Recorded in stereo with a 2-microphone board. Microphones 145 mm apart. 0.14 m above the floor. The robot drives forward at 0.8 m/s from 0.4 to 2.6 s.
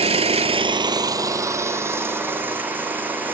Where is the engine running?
45° right (ahead or behind), 0.8 m; by 3.4 s 15° right (ahead or behind), 2.5 m.